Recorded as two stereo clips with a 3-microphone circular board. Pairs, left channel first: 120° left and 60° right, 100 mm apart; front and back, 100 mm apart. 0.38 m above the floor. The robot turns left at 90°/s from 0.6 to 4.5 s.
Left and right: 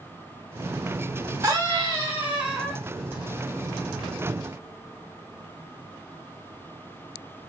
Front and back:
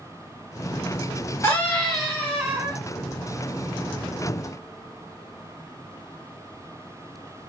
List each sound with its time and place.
1.4 s a scream: 45° right, 1.5 m; by 2.8 s 165° right, 1.5 m